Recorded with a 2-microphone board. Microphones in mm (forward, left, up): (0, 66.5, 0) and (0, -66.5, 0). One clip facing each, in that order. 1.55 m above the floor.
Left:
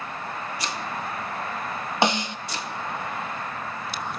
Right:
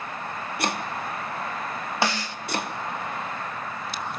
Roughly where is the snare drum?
Left.